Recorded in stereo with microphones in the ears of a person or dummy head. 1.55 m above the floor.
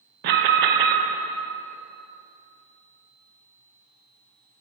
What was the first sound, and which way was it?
An alarm, 50° right (ahead or behind).